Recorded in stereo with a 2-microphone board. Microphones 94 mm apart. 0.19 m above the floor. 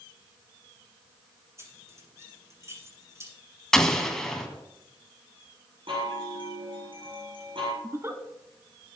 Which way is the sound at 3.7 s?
5° left (ahead or behind).